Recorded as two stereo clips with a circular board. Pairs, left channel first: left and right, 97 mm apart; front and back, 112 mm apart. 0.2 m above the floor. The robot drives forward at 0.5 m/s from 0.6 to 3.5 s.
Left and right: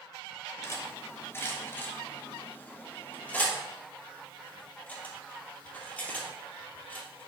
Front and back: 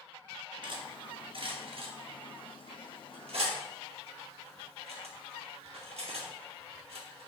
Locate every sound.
0.6 s cutlery clinking: 145° left, 1.5 m; by 7.3 s 165° left, 2.5 m